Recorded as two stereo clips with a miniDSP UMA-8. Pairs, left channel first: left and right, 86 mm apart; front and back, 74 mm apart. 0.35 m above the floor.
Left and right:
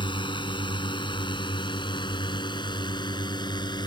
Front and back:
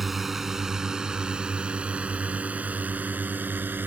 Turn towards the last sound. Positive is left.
turn(degrees=120)